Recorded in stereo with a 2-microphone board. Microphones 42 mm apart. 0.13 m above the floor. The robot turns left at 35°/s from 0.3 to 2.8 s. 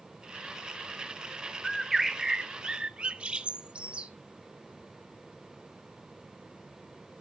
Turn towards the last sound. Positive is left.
turn(degrees=-35)